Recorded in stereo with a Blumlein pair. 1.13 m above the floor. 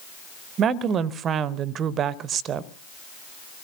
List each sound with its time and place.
0.6 s a woman speaking: 25° right, 0.8 m